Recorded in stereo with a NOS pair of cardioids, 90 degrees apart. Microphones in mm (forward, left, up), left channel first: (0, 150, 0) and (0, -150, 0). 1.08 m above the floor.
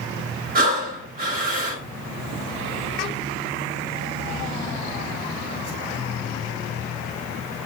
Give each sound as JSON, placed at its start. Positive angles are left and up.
{"t": 0.6, "sound": "breathing", "azimuth_deg": -30, "distance_m": 7.5}